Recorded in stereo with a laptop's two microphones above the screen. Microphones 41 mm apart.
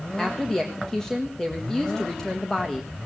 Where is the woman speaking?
10° left (ahead or behind), 1.6 m.